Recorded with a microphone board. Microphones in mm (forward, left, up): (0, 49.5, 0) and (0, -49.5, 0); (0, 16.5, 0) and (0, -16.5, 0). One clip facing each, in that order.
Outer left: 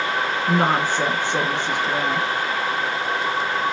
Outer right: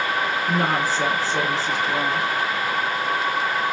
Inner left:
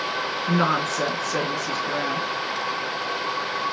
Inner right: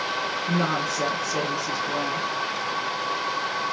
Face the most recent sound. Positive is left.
turn(degrees=65)  # may be behind; listen again after turning